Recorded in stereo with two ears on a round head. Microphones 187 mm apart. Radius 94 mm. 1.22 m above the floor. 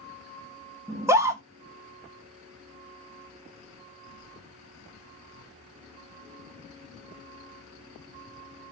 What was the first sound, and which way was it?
A scream, 15° right (ahead or behind).